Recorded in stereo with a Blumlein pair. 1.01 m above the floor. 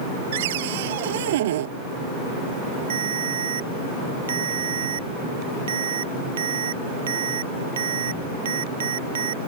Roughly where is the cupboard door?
Ahead right.